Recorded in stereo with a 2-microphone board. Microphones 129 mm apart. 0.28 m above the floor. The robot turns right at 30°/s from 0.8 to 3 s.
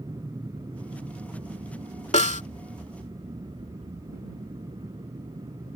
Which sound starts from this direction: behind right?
An aircraft, at 0.0 s.